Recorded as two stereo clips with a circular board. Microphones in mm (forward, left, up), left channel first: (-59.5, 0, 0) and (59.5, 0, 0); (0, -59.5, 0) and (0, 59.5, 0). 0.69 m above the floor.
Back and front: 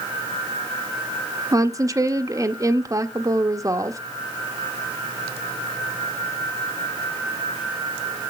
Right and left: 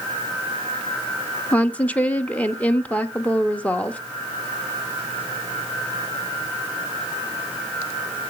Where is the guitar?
I don't hear a guitar.